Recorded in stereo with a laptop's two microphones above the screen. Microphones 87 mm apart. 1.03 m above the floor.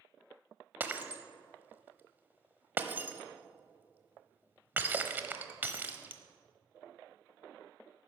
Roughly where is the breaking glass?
Right.